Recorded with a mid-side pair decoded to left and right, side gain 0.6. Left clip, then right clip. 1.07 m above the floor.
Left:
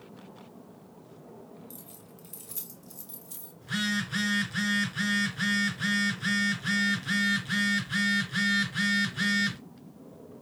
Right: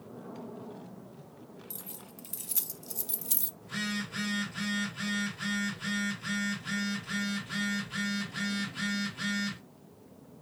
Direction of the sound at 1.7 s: 30° right.